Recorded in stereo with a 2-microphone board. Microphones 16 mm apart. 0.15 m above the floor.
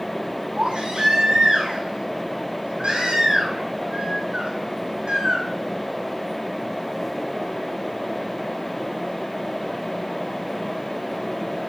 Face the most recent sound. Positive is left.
turn(degrees=-75)  # may be behind; listen again after turning